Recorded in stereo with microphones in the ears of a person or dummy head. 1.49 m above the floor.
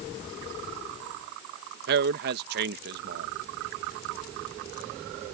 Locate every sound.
1.9 s a man speaking: 60° right (ahead or behind)